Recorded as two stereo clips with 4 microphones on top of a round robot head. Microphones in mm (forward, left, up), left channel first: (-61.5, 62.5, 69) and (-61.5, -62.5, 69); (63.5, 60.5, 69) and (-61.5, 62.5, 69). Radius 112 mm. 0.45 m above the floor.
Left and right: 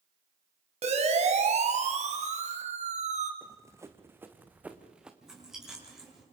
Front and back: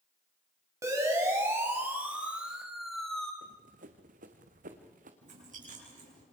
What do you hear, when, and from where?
0.8 s a siren: 115° right, 4.5 m; by 3.3 s 85° right, 3 m
3.4 s running footsteps: 150° right, 2 m; by 5.1 s 175° right, 2.5 m
5.2 s chewing: 175° right, 8 m